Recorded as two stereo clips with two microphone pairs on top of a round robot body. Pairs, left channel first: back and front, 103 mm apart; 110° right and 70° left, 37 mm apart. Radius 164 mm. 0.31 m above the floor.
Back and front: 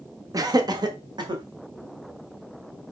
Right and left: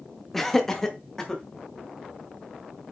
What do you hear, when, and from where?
0.3 s laughter: 25° right, 1.3 m; by 1.4 s 35° right, 2 m